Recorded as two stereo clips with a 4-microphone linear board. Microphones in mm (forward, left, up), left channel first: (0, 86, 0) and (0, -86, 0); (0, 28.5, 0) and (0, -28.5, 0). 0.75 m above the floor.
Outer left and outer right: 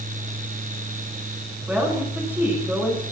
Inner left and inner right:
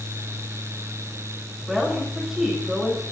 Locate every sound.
1.7 s a woman speaking: 10° right (ahead or behind), 9 m